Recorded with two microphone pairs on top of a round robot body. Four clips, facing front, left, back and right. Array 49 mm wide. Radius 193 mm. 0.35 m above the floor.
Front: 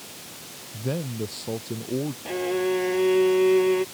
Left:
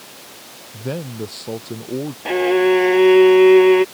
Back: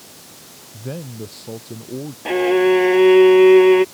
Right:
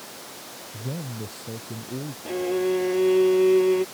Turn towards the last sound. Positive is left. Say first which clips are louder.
# left 9 dB, back 12 dB
turn(degrees=125)